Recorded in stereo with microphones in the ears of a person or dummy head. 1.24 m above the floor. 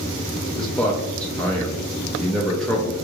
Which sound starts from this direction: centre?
A man speaking, at 0.6 s.